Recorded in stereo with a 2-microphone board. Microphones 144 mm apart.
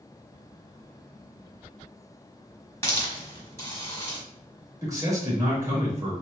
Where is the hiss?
20° left (ahead or behind), 1.4 m.